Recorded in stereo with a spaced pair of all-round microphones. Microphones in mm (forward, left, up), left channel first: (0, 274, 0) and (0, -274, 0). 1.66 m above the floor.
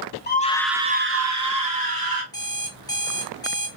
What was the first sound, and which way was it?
A scream, 20° left (ahead or behind).